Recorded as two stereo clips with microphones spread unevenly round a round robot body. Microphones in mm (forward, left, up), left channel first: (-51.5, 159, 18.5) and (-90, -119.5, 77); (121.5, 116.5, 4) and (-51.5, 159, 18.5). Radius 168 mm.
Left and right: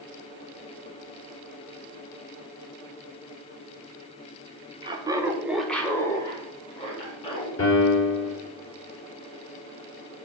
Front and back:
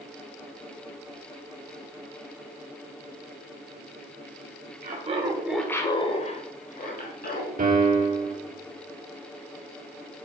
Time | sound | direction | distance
4.8 | laughter | straight behind | 1.4 m
7.6 | a piano | 125° left | 3.5 m